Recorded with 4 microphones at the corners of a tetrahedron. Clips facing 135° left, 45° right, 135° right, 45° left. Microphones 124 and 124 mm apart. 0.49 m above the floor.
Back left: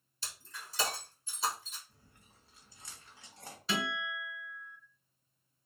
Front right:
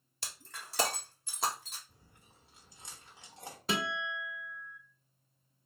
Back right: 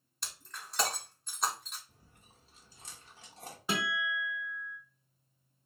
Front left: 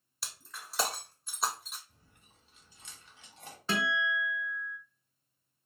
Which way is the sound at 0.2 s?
40° right.